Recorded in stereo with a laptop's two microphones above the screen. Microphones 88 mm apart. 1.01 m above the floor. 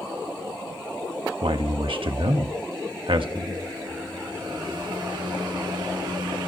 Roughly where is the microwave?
Right.